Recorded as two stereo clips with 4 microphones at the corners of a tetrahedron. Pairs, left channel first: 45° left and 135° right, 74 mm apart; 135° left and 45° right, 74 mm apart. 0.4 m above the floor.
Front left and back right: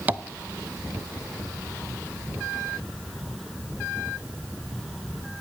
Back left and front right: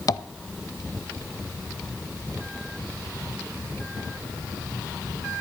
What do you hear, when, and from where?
0.1 s tapping: 160° left, 0.6 m